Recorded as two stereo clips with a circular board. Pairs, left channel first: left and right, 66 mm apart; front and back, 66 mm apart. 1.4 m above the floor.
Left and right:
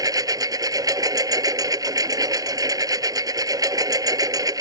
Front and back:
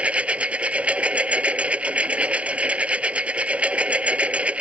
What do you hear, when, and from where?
0.0 s a lawn mower: 110° right